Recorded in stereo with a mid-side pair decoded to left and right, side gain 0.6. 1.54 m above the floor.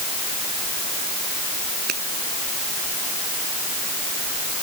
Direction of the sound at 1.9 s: 60° right.